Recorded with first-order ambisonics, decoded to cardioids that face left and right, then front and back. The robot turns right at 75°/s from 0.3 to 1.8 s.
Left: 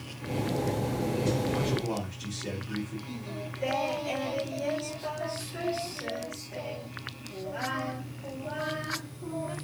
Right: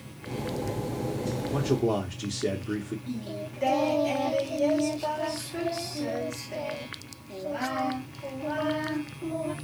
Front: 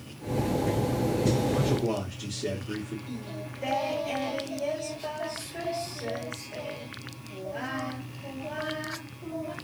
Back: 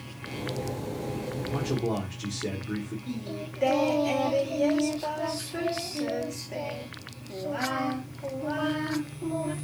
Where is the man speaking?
110° right, 0.8 m; by 3.0 s 90° right, 0.8 m.